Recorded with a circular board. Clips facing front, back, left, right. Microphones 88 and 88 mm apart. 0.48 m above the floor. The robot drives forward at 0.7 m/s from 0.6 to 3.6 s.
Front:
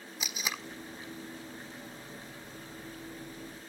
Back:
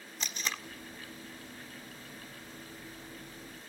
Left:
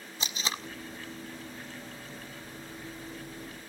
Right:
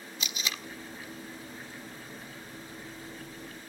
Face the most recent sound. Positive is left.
turn(degrees=160)